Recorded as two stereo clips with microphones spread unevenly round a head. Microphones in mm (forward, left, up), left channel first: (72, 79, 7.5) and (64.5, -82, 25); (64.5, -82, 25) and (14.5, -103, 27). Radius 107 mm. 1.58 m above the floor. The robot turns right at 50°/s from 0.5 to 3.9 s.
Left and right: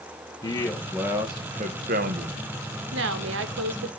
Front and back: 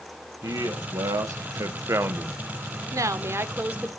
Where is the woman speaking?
135° right, 1.2 m; by 3.9 s 85° right, 1.2 m.